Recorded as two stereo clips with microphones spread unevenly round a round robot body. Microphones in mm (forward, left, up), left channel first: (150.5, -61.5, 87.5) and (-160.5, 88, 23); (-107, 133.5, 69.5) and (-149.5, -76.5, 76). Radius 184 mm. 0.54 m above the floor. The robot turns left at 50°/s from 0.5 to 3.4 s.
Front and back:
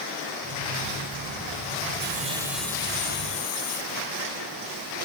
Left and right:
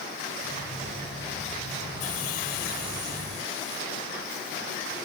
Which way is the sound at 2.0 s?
90° left.